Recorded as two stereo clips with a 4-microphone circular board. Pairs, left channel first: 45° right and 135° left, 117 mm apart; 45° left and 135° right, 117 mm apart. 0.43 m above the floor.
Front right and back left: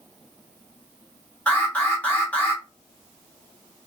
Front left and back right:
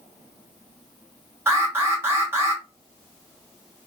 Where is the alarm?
100° right, 0.9 m.